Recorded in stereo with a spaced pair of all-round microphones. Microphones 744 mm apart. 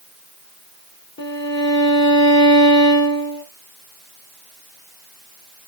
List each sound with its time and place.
1.2 s a violin: 15° left (ahead or behind), 1.1 m